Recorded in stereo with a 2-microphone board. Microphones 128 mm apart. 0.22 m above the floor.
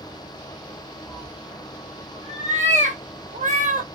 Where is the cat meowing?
50° right (ahead or behind), 2 m; by 3.9 s 80° right, 1.1 m.